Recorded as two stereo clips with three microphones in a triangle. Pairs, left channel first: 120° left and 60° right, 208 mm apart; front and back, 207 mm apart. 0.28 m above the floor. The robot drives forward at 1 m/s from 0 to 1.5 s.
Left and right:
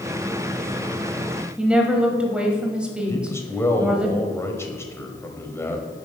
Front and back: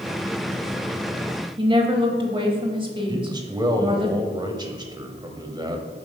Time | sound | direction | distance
1.6 | a woman speaking | 140° right | 1.2 m
3.1 | a man speaking | 170° left | 1.1 m